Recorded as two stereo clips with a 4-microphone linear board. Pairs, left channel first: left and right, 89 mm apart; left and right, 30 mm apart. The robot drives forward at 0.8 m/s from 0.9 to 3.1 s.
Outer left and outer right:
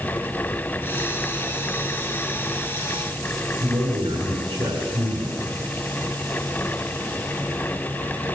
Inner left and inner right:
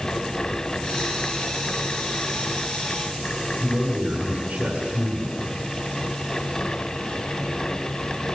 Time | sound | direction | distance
3.6 | a man speaking | 80° right | 6 m